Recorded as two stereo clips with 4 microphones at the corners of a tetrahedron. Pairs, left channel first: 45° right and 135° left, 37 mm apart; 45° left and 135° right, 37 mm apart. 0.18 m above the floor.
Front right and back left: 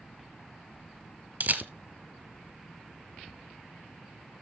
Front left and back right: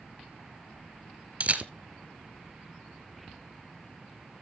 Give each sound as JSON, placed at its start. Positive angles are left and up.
{"t": 1.4, "sound": "a camera shutter", "azimuth_deg": 175, "distance_m": 0.9}